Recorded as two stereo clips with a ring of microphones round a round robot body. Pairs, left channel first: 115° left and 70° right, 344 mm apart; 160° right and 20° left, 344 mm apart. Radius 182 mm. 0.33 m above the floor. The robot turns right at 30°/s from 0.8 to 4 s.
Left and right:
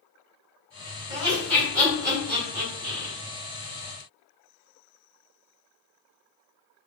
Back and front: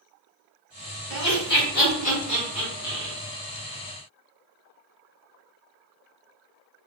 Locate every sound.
1.1 s laughter: 140° right, 1.7 m; by 3.1 s 80° right, 1.7 m